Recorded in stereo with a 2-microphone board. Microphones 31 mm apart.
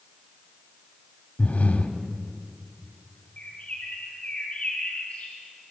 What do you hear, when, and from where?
1.4 s breathing: 55° left (ahead or behind), 1.8 m
3.4 s a bird: 50° left (ahead or behind), 6.5 m